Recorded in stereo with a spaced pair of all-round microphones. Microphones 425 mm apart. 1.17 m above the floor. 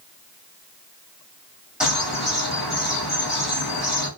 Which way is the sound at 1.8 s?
Centre (ahead or behind).